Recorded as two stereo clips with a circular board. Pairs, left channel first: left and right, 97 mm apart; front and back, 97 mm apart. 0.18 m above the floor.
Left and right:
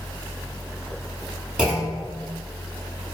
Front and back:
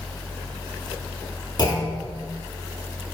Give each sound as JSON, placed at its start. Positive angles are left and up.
{"t": 1.6, "sound": "a clunk", "azimuth_deg": -10, "distance_m": 0.8}